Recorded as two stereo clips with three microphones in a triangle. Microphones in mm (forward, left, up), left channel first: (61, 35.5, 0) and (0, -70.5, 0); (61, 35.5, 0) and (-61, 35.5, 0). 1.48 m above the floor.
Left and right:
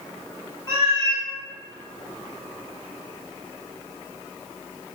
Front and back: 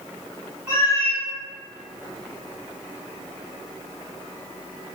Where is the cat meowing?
110° left, 1.3 m.